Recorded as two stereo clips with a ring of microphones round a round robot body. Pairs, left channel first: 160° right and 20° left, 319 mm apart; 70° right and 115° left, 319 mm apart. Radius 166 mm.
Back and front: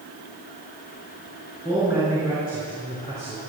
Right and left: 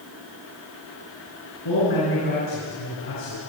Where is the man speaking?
55° right, 6 m; by 3.4 s 45° right, 5.5 m.